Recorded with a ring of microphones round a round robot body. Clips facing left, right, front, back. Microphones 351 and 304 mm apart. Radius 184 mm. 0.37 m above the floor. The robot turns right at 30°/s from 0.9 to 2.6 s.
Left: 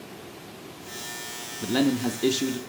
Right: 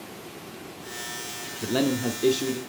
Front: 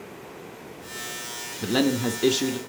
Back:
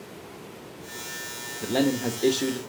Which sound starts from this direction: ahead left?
A man speaking, at 1.6 s.